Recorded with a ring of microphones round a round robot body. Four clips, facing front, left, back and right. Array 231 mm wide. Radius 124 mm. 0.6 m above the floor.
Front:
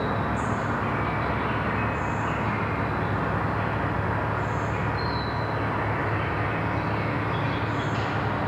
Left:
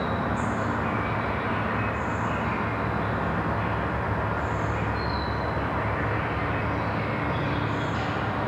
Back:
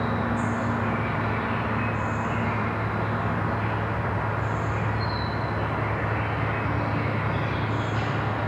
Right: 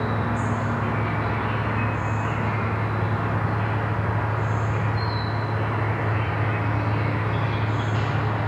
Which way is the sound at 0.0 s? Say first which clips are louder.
Right 1 dB, back 1 dB; 15° right.